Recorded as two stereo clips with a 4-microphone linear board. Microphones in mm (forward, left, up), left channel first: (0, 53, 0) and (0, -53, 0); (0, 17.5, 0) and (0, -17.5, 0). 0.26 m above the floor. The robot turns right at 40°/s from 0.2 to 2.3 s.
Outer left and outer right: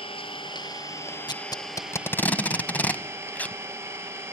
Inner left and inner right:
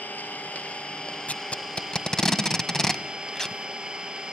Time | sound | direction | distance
0.0 | an engine running | 120° left | 3 m
1.3 | tape being pulled | 45° left (ahead or behind) | 1.1 m